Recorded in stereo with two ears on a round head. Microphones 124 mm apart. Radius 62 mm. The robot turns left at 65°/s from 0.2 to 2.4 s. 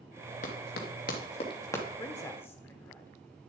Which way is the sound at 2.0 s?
30° left (ahead or behind).